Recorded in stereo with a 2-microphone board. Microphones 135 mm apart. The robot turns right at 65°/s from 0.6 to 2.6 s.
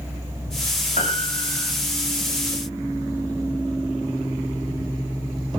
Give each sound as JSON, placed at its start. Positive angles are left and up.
{"t": 1.0, "sound": "a piano", "azimuth_deg": 110, "distance_m": 6.0}